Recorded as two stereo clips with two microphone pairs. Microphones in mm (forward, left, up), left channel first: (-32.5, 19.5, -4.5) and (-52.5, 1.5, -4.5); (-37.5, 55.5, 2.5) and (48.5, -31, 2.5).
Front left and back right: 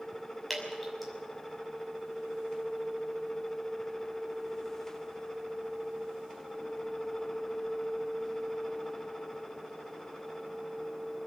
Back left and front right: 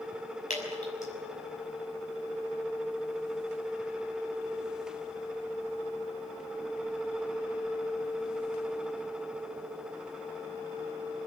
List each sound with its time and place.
0.5 s dripping: 130° left, 6 m